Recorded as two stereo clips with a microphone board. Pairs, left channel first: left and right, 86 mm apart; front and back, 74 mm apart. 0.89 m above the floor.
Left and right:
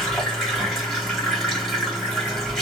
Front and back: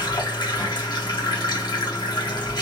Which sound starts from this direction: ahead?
Running water, at 0.0 s.